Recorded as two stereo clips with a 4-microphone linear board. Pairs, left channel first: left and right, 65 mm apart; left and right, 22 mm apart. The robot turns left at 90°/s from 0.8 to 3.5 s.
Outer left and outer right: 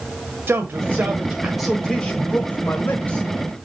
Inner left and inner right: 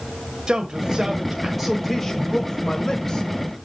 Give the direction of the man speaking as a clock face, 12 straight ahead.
3 o'clock.